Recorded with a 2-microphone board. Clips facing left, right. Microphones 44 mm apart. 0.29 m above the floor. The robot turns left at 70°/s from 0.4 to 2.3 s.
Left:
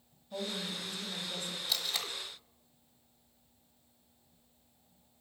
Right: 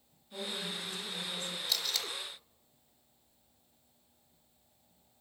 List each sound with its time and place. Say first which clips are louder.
0.3 s a woman speaking: left 1 dB; 100° left, 2 m; by 1.6 s 15° left, 2 m
1.7 s tape being pulled: even; 5° left (ahead or behind), 1.0 m; by 2.1 s 25° left (ahead or behind), 1.0 m